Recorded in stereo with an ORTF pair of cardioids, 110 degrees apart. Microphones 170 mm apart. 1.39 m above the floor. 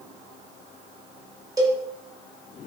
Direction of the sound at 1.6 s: 20° right.